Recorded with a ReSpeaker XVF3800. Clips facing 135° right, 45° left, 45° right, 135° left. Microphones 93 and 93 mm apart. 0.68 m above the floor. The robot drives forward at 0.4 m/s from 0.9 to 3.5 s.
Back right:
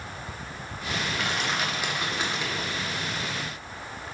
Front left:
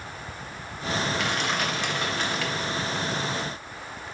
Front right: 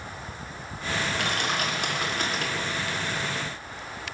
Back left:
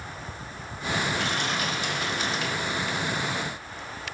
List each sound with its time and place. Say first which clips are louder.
1.1 s crushing: front left 2 dB, even; 45° right, 1.5 m; by 2.7 s 75° right, 1.2 m